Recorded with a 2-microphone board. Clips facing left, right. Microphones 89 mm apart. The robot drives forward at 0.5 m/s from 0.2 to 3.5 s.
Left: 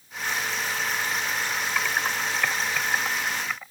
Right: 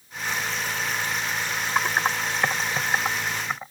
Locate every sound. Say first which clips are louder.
1.8 s typing on a keyboard: right 5 dB; 35° right (ahead or behind); by 3.7 s 25° right (ahead or behind)